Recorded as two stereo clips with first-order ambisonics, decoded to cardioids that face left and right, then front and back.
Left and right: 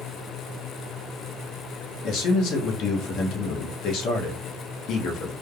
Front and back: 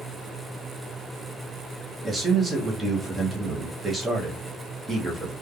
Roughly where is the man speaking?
Left.